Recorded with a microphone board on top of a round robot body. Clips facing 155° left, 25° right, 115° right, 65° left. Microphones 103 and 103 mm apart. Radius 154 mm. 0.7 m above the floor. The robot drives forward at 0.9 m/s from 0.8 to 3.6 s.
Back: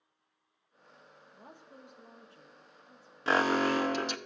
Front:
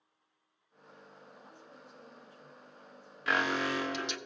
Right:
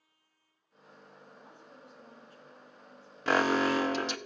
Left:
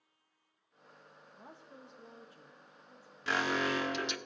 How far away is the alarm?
About 0.6 m.